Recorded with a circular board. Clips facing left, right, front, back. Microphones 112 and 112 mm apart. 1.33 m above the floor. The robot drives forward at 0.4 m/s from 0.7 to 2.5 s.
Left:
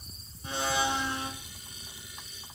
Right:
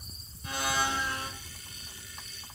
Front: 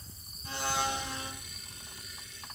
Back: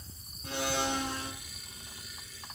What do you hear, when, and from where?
0.4 s a blender: 155° left, 3.5 m